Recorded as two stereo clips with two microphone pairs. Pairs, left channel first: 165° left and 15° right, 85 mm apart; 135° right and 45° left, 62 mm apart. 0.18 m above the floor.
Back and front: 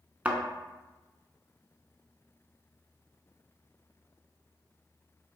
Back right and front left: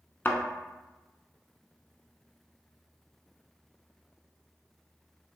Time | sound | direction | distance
0.2 | a thud | 85° right | 0.6 m